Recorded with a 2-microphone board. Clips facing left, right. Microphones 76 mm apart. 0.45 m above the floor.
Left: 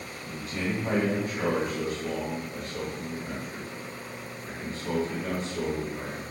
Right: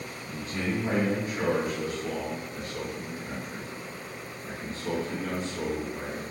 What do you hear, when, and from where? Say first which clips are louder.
0.2 s a man speaking: even; 20° right (ahead or behind), 1.5 m; by 6.2 s 5° right (ahead or behind), 4 m